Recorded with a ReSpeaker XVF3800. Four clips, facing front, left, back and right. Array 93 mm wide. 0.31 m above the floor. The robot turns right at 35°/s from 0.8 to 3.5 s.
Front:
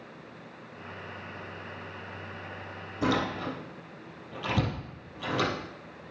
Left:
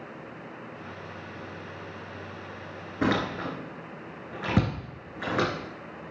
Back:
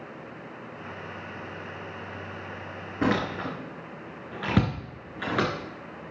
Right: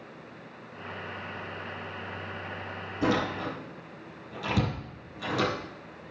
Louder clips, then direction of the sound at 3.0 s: Left 1 dB, back 2 dB; 130° left.